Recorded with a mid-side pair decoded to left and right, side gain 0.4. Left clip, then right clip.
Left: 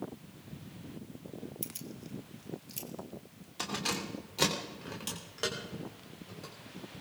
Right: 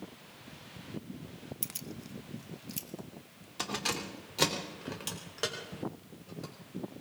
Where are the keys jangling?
35° right, 0.7 m; by 6.5 s 15° right, 5 m.